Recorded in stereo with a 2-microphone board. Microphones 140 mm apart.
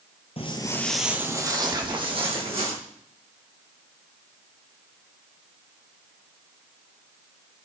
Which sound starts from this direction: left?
Footsteps, at 0.4 s.